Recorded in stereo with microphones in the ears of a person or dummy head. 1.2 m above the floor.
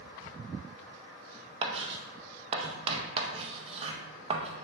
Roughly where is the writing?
Right.